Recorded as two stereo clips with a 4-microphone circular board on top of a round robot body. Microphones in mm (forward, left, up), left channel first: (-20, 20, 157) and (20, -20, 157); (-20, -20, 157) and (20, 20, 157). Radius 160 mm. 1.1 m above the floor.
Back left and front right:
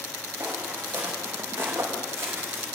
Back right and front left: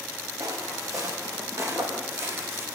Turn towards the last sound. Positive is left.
turn(degrees=0)